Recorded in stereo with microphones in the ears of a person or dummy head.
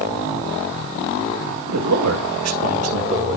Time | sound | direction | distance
1.7 | a man speaking | 75° right (ahead or behind) | 1.9 m